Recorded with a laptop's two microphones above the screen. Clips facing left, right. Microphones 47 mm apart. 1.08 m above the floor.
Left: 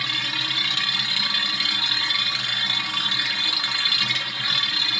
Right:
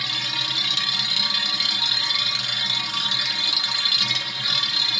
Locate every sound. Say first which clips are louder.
0.0 s a machine running: left 2 dB; 20° left (ahead or behind), 0.8 m